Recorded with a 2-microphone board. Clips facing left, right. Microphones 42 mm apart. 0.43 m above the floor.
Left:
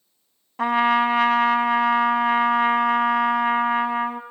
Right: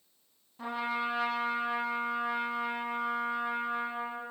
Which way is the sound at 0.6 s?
80° left.